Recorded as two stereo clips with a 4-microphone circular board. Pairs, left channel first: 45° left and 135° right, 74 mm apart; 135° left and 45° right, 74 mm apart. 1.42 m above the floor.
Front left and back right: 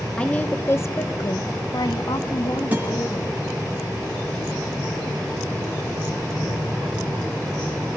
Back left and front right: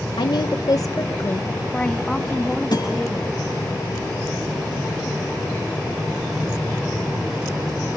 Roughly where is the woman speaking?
Behind left.